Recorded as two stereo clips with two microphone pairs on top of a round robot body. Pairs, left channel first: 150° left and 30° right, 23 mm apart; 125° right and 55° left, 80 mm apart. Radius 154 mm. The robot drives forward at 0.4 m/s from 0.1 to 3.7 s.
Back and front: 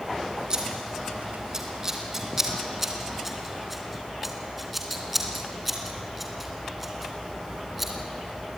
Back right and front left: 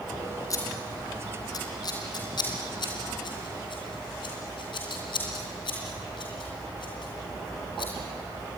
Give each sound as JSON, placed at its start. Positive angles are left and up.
{"t": 0.5, "sound": "scissors", "azimuth_deg": -85, "distance_m": 2.5}